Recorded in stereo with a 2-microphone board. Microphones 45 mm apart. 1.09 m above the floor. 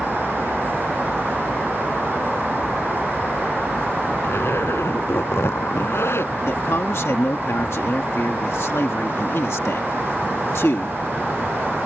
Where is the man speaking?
85° left.